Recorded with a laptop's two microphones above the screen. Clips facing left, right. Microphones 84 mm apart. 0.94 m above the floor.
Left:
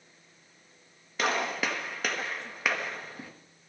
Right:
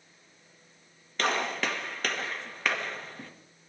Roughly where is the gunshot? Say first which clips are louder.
Even; centre.